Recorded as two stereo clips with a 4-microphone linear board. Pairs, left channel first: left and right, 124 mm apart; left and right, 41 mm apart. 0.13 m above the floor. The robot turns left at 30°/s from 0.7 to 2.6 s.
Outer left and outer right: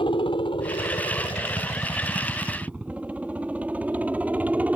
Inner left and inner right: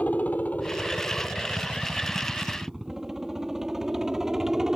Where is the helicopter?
40° left (ahead or behind); by 4.8 s 15° right (ahead or behind).